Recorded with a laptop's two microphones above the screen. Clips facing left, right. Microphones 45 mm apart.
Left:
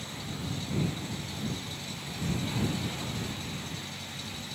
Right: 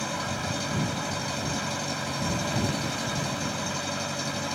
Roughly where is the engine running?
Right.